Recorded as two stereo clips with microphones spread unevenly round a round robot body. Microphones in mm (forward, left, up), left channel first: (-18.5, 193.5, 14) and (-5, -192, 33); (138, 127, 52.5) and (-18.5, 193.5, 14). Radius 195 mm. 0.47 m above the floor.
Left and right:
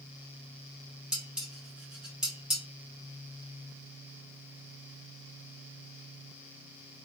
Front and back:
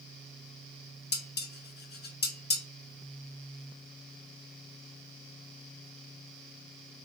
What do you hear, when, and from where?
1.1 s dishes clattering: straight ahead, 1.0 m